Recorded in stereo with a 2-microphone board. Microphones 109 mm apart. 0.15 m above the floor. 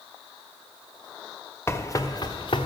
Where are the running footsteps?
25° left (ahead or behind), 1.0 m; by 2.7 s 55° left (ahead or behind), 0.9 m.